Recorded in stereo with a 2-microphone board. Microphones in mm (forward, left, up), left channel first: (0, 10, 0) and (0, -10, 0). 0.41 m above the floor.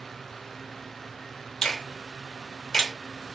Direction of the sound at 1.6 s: 30° left (ahead or behind).